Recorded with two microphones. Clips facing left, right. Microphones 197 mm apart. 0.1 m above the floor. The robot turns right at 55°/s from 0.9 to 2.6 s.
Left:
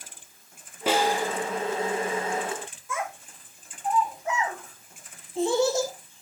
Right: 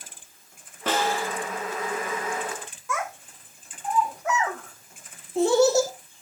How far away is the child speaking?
About 2.5 m.